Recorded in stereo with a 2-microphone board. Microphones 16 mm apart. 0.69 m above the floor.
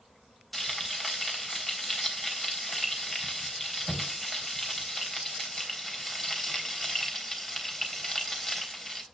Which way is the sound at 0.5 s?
10° left (ahead or behind).